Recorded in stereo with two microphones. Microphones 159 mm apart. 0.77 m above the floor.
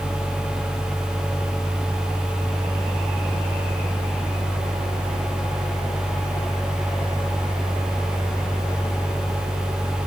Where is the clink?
I don't hear a clink.